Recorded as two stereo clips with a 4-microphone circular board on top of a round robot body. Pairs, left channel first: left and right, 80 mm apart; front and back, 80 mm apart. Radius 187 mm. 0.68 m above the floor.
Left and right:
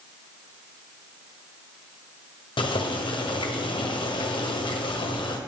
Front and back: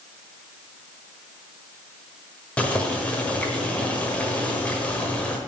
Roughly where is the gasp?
No gasp in this recording.